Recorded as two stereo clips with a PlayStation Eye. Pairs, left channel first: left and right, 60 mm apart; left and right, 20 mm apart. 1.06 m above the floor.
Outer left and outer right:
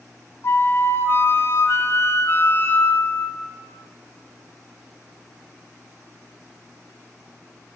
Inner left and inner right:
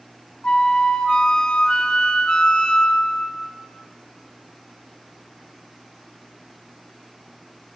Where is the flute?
45° left (ahead or behind), 0.6 m.